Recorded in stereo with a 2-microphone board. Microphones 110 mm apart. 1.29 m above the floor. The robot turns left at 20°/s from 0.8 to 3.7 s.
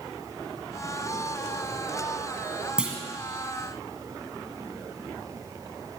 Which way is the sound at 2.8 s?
10° right (ahead or behind).